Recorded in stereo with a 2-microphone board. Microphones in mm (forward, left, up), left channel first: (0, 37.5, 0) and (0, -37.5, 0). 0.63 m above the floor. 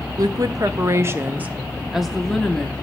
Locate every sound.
0.2 s a woman speaking: 55° right (ahead or behind), 1.0 m; by 2.7 s 15° left (ahead or behind), 1.1 m